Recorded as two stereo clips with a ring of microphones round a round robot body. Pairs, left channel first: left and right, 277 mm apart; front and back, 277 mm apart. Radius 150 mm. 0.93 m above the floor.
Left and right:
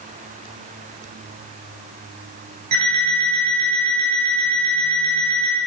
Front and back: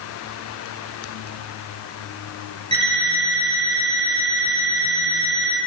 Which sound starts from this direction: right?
An alarm clock, at 2.7 s.